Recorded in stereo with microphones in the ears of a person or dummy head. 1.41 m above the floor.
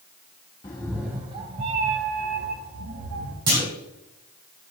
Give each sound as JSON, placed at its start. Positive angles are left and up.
{"t": 0.6, "sound": "a cat meowing", "side_deg": 15, "distance_m": 0.6}
{"t": 3.5, "sound": "a clunk", "side_deg": -30, "distance_m": 1.9}